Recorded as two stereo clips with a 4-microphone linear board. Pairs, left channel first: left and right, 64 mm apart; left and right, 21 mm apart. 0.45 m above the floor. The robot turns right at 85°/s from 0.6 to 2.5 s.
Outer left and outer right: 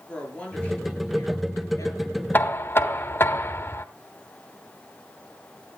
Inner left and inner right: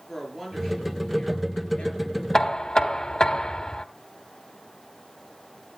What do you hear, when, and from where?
0.1 s a woman speaking: 15° left, 7.5 m; by 2.2 s 155° left, 7.5 m
2.3 s knocking: 30° left (ahead or behind), 1.1 m; by 3.9 s 35° left (ahead or behind), 1.1 m